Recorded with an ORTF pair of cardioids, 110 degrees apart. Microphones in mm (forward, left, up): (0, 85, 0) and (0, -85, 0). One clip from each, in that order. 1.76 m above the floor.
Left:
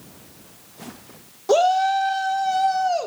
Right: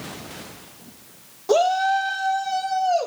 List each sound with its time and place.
1.5 s a shout: 15° left, 1.2 m; by 3.1 s 20° left, 2 m